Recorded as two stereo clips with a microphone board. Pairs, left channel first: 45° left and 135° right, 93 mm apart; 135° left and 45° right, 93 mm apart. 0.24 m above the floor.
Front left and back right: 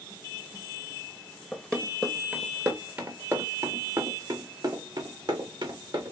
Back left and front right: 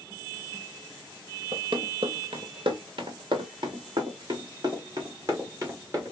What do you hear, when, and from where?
1.5 s running footsteps: 35° right, 1.3 m; by 6.1 s 95° right, 2.5 m